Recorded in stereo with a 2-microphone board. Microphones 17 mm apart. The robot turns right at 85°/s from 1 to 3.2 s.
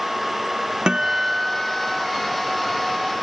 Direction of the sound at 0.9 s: 50° right.